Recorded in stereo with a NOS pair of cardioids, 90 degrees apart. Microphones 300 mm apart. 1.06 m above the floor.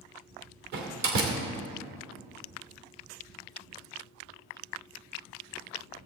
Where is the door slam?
65° right, 2.5 m.